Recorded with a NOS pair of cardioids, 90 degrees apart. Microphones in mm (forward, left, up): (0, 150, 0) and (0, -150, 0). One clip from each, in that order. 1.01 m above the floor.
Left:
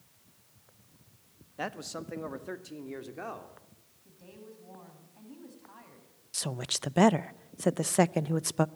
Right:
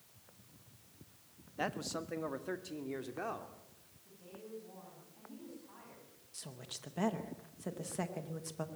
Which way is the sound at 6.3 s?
70° left.